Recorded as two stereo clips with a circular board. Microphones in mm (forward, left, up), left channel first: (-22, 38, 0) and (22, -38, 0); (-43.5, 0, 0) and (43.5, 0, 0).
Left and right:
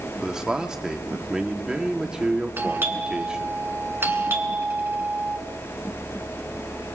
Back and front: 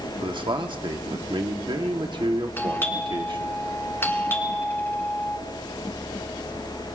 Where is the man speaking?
20° left, 1.2 m.